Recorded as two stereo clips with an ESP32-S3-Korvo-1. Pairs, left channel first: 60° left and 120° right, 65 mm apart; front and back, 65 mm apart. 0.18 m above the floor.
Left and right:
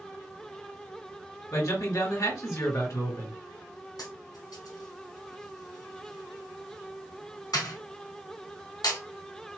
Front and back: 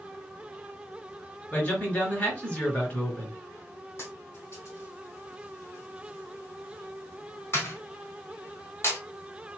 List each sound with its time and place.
1.5 s a man speaking: 65° left, 3 m
4.0 s a dropped coin: 50° left, 2.5 m